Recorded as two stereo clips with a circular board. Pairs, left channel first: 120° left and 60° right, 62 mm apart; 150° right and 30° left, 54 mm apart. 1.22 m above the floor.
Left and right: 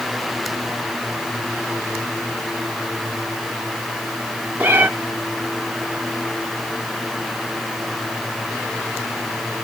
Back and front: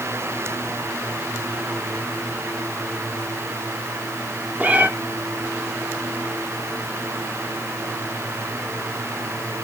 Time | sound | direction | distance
4.6 | a cat meowing | 15° right | 1.0 m